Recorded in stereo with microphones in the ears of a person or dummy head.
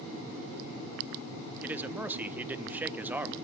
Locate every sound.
1.6 s a man speaking: 10° right (ahead or behind), 1.0 m